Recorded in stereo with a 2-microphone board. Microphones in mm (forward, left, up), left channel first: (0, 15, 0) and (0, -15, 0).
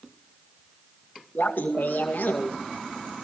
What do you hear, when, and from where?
1.4 s laughter: 70° left (ahead or behind), 2.0 m